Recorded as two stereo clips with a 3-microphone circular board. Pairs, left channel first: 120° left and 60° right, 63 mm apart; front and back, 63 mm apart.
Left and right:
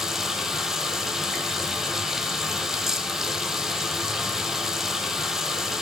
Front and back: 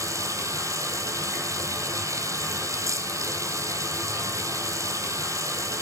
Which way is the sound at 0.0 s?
145° right.